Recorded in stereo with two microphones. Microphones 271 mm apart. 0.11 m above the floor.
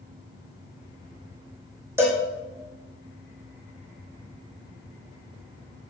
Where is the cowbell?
10° right (ahead or behind), 1.8 m.